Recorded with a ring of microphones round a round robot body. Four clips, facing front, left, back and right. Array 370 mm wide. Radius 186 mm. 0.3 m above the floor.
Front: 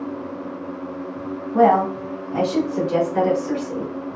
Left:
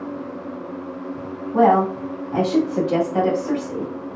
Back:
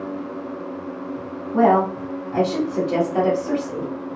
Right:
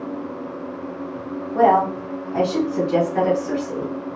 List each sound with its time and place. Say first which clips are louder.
1.5 s a woman speaking: even, front 1 dB; 90° left, 1.9 m; by 3.9 s 140° left, 1.7 m